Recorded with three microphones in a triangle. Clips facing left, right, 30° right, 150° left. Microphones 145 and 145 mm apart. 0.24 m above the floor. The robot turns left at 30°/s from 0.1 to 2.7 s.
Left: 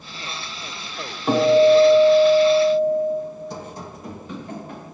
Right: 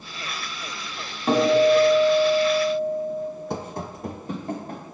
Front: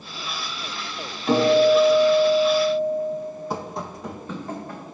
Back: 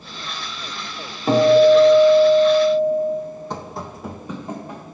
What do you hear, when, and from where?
1.3 s a guitar: 175° left, 1.2 m; by 3.1 s 130° left, 1.2 m
3.5 s running footsteps: 110° right, 0.7 m; by 4.8 s 135° right, 1.6 m